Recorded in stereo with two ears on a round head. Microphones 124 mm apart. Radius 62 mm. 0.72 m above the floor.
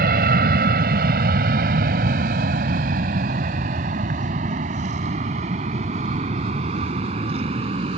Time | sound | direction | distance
0.0 | an aircraft | 70° right (ahead or behind) | ?